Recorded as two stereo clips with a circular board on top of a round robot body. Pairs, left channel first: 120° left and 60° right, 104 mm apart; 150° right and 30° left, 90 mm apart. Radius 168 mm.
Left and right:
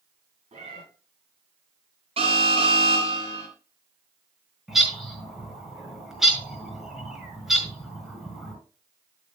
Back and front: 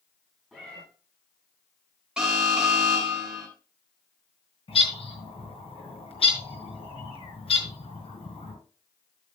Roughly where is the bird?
Behind right.